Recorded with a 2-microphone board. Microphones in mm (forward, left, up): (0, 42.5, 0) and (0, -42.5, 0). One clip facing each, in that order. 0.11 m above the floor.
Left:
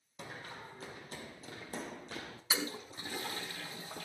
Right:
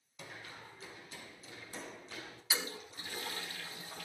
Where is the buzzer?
I don't hear a buzzer.